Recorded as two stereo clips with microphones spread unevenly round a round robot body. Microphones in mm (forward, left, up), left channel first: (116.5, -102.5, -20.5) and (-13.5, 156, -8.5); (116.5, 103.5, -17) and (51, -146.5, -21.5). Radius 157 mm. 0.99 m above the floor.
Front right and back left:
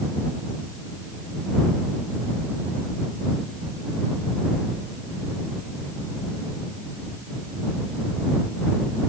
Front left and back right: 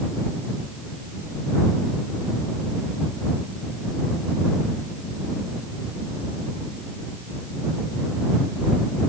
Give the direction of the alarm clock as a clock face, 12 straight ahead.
I don't hear an alarm clock.